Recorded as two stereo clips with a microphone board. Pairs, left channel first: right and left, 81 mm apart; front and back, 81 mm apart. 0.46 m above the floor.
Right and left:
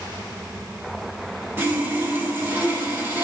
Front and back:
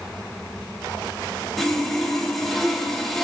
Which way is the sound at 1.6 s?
85° left.